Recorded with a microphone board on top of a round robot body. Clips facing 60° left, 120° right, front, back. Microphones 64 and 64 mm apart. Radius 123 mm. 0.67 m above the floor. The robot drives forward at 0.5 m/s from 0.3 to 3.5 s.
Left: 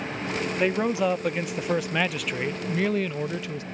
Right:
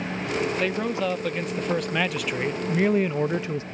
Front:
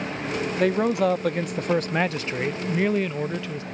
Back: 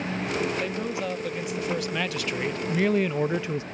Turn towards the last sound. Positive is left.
turn(degrees=-135)